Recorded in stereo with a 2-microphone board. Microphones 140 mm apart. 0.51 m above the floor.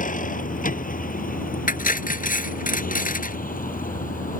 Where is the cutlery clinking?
80° left.